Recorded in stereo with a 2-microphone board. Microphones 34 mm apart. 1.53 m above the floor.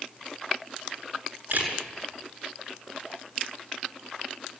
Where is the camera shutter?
65° right (ahead or behind), 7.5 m.